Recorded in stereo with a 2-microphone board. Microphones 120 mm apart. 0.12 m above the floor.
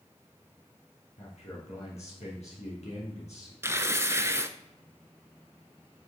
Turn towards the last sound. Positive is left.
turn(degrees=-20)  # may be behind; listen again after turning